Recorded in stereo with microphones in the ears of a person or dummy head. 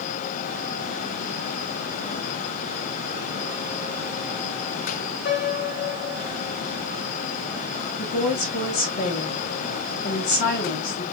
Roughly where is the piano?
Left.